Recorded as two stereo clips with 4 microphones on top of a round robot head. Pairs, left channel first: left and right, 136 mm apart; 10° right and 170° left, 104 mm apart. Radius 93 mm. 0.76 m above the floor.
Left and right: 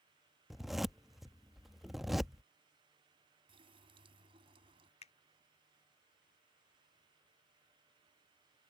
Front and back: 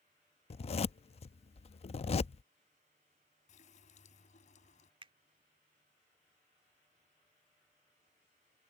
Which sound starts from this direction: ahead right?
A running tap, at 3.5 s.